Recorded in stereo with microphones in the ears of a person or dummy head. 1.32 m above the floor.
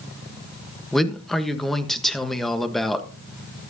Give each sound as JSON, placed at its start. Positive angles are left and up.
{"t": 0.9, "sound": "a man speaking", "side_deg": 0, "distance_m": 1.2}